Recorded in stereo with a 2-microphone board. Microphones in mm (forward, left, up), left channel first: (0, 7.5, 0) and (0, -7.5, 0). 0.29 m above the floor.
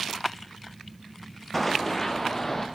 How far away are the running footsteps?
About 0.8 m.